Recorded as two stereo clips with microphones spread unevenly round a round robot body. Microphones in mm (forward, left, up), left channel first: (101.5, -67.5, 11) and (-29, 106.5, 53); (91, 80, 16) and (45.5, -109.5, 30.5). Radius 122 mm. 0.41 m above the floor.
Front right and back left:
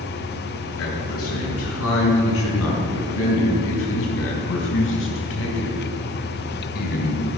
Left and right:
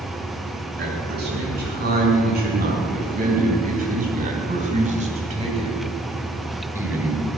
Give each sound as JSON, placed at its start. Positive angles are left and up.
{"t": 0.8, "sound": "a man speaking", "azimuth_deg": -70, "distance_m": 7.0}